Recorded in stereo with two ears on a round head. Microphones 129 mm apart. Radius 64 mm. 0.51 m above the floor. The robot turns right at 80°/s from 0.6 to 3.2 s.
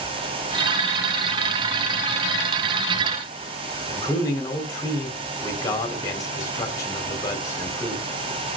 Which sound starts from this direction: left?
A man speaking, at 3.9 s.